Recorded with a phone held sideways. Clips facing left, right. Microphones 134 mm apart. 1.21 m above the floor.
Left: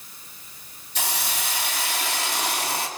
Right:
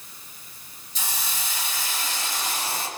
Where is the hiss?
70° left (ahead or behind), 2.5 m.